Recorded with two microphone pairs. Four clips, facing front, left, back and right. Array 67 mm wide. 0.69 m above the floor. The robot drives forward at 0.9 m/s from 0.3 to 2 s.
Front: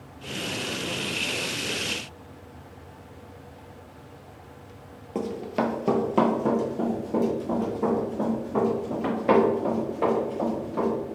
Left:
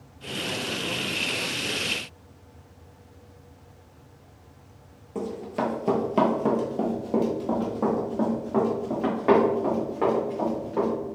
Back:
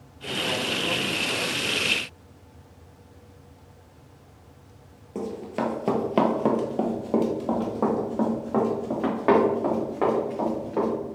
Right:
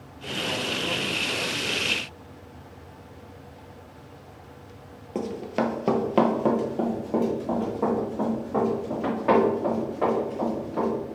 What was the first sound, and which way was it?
Running footsteps, 65° right.